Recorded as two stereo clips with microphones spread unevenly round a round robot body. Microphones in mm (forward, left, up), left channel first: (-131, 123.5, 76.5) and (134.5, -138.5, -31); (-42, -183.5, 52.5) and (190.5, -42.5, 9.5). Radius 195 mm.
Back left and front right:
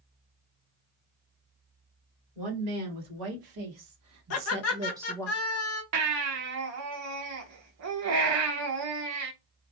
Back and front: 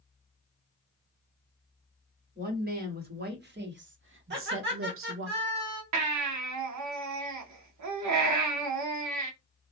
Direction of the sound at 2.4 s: 25° right.